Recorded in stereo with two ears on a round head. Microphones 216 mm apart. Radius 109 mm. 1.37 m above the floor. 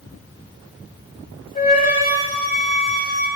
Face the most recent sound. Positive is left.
turn(degrees=35)  # may be behind; listen again after turning